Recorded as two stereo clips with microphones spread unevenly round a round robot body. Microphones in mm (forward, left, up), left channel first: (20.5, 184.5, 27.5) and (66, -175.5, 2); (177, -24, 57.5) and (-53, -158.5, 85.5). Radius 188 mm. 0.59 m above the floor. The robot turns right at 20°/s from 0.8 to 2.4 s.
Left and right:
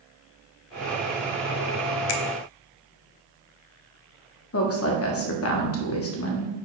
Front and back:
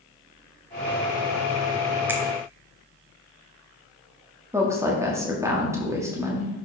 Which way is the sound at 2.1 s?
120° left.